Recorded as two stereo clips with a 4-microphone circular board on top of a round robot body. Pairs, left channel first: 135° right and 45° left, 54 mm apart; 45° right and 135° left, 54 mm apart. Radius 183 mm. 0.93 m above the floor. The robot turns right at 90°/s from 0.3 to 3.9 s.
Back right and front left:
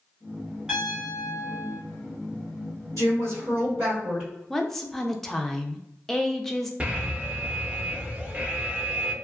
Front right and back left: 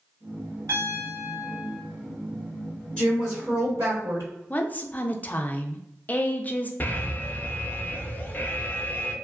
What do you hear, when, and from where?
0.7 s a piano: 125° left, 1.2 m; by 1.8 s 135° right, 1.2 m
3.0 s a woman speaking: 30° left, 1.8 m; by 4.3 s 115° left, 1.8 m
4.5 s a woman speaking: 55° right, 0.6 m
6.8 s an alarm: 10° right, 0.8 m